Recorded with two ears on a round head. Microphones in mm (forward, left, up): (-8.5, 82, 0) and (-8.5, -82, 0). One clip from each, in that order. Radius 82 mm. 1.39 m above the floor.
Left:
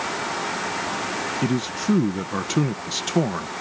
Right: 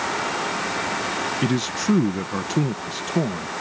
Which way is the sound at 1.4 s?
25° right (ahead or behind).